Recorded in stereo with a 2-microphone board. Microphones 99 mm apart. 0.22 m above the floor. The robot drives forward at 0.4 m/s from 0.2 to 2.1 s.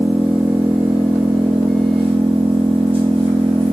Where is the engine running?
70° right (ahead or behind), 1.8 m; by 3.8 s 75° right (ahead or behind), 1.7 m.